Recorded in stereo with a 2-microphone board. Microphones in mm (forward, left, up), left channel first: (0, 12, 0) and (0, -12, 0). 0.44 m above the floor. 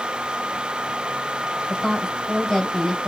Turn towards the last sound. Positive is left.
turn(degrees=5)  # may be behind; listen again after turning